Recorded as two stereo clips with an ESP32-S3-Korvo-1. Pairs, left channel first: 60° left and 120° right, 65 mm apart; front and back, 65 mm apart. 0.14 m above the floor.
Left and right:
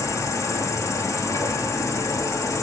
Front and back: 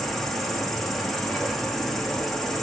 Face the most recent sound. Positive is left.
turn(degrees=85)